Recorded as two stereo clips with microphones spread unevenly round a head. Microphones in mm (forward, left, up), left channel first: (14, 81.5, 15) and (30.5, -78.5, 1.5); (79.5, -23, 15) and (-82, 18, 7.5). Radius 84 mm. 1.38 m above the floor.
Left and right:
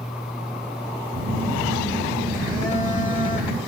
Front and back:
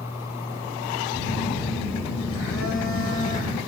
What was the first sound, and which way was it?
A phone buzzing, straight ahead.